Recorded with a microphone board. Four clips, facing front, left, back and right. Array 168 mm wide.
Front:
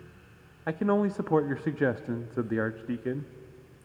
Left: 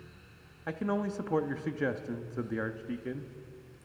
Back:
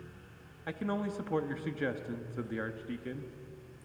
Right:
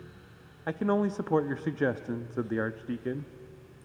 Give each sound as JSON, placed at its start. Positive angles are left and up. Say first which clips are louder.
{"t": 0.7, "sound": "a man speaking", "louder": "right 5 dB, front 9 dB", "azimuth_deg": -25, "distance_m": 0.6}